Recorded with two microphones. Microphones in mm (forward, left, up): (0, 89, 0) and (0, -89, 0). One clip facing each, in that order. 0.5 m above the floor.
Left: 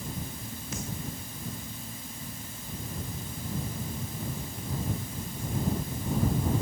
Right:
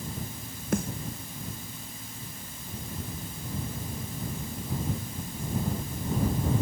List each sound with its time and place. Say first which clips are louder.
0.7 s a snare drum: right 10 dB; 55° right (ahead or behind)